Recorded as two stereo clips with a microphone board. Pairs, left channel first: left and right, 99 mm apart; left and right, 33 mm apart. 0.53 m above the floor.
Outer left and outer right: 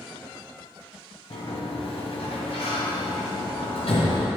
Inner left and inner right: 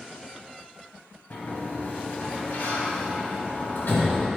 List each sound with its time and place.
1.3 s a sliding door: 80° left, 1.6 m